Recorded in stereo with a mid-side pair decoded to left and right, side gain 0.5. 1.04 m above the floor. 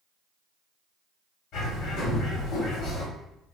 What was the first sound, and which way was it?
A bird, 70° left.